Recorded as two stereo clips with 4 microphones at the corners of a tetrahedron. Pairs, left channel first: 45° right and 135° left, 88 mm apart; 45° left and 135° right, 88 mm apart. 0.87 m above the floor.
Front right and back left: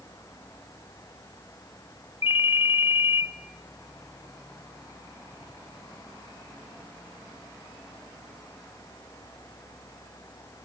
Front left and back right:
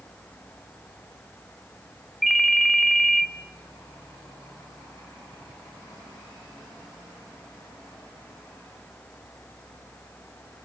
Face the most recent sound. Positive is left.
turn(degrees=-45)